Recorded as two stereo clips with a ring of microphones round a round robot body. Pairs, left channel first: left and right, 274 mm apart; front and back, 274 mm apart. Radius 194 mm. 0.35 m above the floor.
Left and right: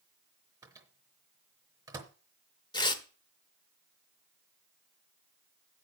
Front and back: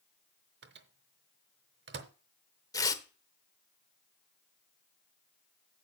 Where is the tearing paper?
50° left, 1.1 m.